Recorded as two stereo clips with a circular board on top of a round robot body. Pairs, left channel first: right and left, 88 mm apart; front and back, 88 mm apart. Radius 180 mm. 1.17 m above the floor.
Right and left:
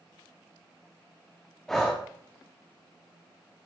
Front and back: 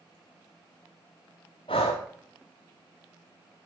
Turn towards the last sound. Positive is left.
turn(degrees=-5)